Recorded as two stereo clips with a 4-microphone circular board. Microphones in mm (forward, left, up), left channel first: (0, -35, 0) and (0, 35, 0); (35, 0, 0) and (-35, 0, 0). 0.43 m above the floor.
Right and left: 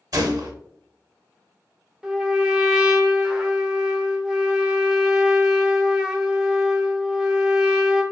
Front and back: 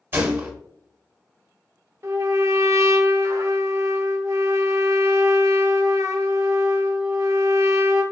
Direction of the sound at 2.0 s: 165° left.